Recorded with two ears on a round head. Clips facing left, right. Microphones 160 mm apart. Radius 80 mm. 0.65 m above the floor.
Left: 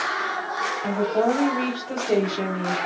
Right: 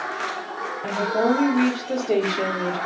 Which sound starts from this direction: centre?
A woman speaking, at 0.8 s.